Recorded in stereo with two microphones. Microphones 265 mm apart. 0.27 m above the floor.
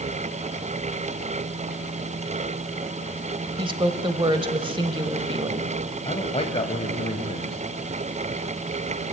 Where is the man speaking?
25° left (ahead or behind), 1.2 m.